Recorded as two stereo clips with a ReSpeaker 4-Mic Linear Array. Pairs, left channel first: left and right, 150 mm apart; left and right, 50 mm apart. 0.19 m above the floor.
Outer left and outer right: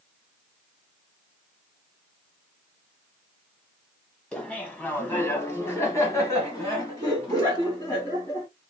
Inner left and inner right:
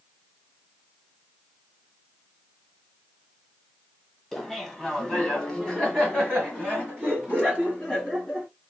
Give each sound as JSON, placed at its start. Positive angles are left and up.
{"t": 4.3, "sound": "laughter", "side_deg": 5, "distance_m": 1.3}